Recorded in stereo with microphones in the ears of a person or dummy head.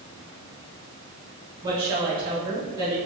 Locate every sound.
1.6 s a woman speaking: 20° right (ahead or behind), 1.1 m